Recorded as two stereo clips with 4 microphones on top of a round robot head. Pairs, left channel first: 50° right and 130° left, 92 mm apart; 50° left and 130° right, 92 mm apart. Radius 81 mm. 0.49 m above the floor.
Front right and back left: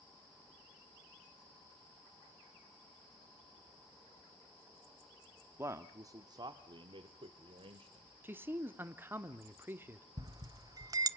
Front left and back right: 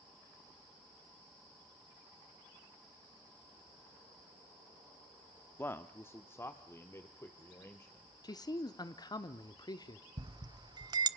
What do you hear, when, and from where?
5.6 s a man speaking: 95° left, 0.9 m; by 8.1 s 110° left, 2.5 m
8.2 s a man speaking: 70° left, 1.0 m
10.2 s a bell: straight behind, 0.7 m